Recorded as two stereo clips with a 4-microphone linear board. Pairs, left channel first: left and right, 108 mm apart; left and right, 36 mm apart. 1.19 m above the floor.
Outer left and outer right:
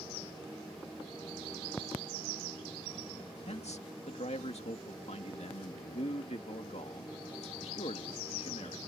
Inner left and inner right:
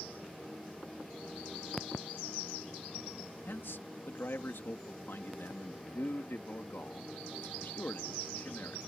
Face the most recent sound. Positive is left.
turn(degrees=80)